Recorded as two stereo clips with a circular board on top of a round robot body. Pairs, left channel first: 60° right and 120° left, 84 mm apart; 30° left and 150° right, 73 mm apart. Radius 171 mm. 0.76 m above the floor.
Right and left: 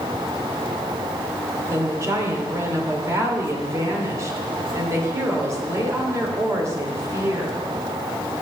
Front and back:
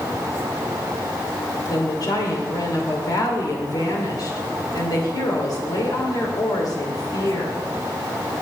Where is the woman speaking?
65° left, 3 m.